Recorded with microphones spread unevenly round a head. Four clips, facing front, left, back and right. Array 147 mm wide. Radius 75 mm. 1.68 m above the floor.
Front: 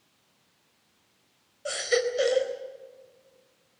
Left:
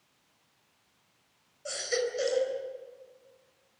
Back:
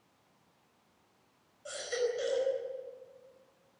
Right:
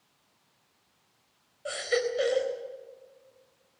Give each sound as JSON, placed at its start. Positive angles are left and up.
{"t": 1.6, "sound": "a baby crying", "azimuth_deg": -15, "distance_m": 4.0}